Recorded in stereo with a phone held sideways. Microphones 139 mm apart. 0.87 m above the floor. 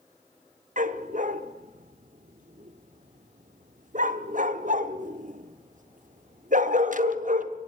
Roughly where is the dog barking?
Right.